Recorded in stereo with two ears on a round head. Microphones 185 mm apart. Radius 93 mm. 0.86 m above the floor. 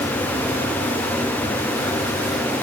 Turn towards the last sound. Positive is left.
No sound to turn to.